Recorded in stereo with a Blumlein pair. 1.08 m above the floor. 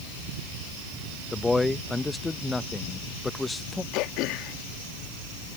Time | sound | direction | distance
1.3 | a man speaking | 10° left | ?
3.9 | throat clearing | 40° left | ?